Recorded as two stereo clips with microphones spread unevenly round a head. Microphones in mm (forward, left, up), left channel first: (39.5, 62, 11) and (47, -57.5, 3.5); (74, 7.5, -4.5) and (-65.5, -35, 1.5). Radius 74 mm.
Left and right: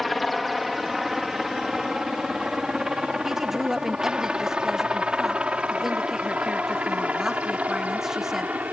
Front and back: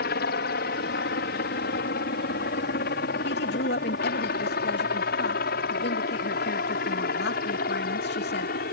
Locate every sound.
0.0 s a helicopter: 5° left; by 8.7 s 10° right
3.2 s a woman speaking: straight ahead